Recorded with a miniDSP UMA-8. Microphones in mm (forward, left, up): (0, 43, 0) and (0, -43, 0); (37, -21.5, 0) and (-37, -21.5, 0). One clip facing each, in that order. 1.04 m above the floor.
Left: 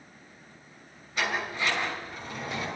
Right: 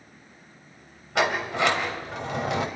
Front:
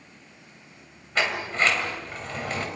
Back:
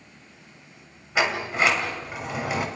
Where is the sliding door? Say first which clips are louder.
Right 7 dB, back 2 dB; 100° right, 3 m.